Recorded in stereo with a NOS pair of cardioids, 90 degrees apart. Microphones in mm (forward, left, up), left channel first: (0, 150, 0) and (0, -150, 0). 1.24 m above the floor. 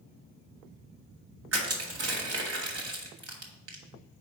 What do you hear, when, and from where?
1.5 s crushing: 50° right, 1.9 m